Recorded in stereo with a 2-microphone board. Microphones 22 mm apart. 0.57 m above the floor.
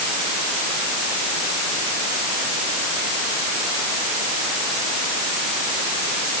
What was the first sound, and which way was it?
Only background noise.